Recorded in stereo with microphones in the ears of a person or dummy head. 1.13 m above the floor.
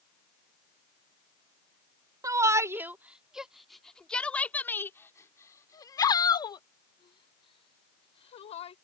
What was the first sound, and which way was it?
A shout, 20° right (ahead or behind).